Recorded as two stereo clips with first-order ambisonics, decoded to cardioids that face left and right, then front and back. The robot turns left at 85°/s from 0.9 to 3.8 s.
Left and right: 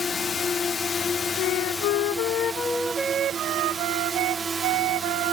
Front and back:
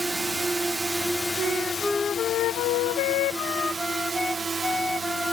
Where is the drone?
110° left; by 5.3 s 135° right.